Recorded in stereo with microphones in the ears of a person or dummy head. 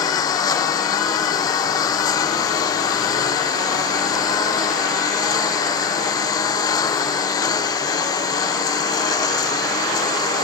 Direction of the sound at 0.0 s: 30° left (ahead or behind).